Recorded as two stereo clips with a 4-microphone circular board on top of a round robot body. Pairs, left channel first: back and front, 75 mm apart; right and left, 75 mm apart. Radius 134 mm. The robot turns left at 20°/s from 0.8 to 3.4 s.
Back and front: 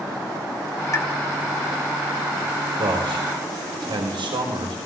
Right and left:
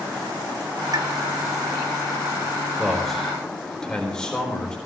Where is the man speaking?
5° left, 4 m; by 4.8 s 10° right, 4 m.